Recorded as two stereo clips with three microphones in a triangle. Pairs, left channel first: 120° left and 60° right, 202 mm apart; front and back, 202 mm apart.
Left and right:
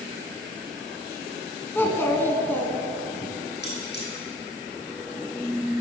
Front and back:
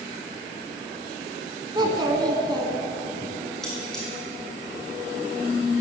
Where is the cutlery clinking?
85° left, 3 m.